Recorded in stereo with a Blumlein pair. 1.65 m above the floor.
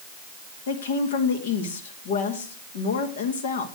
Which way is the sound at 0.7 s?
55° left.